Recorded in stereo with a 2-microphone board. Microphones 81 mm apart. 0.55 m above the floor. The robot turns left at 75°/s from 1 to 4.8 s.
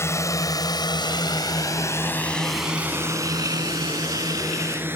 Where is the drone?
35° left (ahead or behind); by 5.0 s 25° right (ahead or behind).